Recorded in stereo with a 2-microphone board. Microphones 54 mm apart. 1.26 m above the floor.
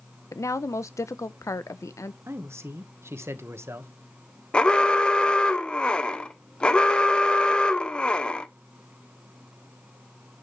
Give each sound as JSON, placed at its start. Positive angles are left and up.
{"t": 0.3, "sound": "a woman speaking", "side_deg": 80, "distance_m": 0.8}
{"t": 2.3, "sound": "a man speaking", "side_deg": -60, "distance_m": 1.3}
{"t": 4.5, "sound": "an alarm", "side_deg": 20, "distance_m": 0.8}